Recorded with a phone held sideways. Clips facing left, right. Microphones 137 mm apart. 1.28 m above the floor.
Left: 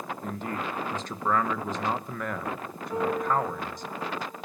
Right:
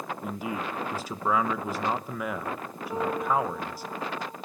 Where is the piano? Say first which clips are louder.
Even; 20° right (ahead or behind), 7 m.